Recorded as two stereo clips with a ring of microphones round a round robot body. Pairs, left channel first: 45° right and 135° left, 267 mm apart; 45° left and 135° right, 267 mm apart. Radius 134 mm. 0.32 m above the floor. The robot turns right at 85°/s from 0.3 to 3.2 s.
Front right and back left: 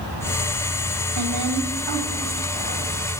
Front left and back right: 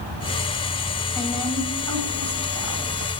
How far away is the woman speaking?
About 2 m.